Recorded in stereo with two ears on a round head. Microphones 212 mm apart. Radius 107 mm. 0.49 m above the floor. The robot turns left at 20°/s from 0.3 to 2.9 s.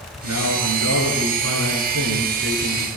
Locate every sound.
0.2 s a man speaking: 85° right, 7.5 m; by 2.9 s 135° right, 7.5 m